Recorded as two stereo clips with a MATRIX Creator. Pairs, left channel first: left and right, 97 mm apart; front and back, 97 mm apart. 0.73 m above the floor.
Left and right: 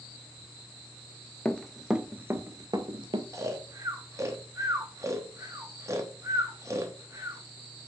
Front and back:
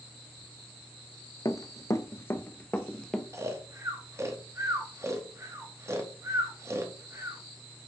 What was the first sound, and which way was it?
Running footsteps, 20° left.